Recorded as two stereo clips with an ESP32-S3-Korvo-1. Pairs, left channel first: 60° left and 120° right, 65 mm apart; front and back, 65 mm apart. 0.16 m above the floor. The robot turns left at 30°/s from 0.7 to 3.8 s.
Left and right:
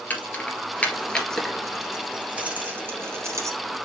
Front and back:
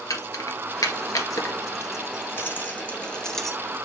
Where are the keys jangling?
5° right, 1.6 m; by 3.6 s 90° right, 1.6 m.